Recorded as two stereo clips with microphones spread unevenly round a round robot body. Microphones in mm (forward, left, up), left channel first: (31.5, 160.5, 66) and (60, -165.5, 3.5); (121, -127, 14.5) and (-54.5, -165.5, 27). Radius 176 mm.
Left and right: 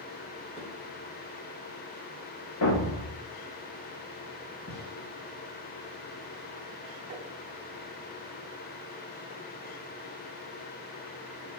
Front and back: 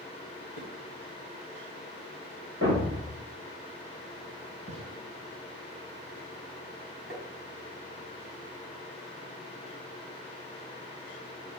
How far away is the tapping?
About 3.5 m.